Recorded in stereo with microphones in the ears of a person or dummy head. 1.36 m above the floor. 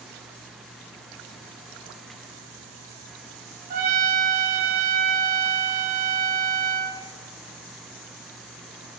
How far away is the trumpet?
About 1.9 m.